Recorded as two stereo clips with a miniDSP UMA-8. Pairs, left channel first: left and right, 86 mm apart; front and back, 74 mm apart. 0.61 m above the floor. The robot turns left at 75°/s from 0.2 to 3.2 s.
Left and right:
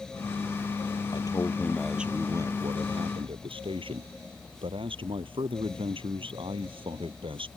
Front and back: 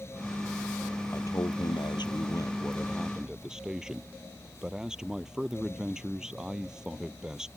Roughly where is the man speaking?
Ahead left.